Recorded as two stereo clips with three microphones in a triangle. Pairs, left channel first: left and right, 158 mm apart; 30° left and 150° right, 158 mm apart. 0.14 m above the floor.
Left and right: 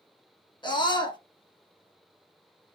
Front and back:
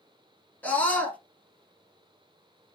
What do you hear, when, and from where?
0.6 s a scream: 100° left, 1.2 m